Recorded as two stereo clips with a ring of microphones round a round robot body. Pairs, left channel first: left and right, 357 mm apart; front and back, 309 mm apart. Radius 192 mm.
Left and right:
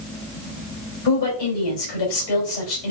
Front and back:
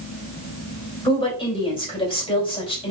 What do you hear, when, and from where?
1.1 s a woman speaking: 75° left, 3 m